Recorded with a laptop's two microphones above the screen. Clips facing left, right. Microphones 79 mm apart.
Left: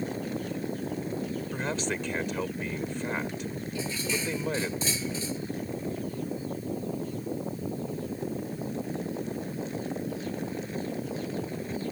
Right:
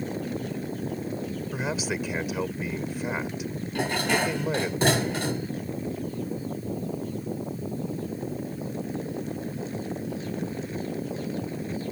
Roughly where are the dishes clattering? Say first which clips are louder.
Right 9 dB; right.